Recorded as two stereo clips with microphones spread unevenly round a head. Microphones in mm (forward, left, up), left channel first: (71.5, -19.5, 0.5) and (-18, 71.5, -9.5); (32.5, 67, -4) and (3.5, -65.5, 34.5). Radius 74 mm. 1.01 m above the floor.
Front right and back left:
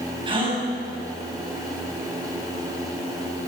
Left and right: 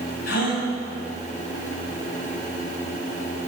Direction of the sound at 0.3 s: 85° left.